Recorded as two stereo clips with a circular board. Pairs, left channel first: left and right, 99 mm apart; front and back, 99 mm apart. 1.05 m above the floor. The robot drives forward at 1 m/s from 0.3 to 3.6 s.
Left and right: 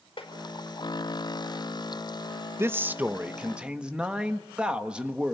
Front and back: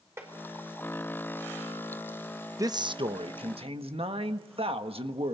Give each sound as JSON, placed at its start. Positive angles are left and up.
{"t": 0.2, "sound": "tapping", "azimuth_deg": 115, "distance_m": 4.5}
{"t": 2.6, "sound": "a man speaking", "azimuth_deg": -140, "distance_m": 0.5}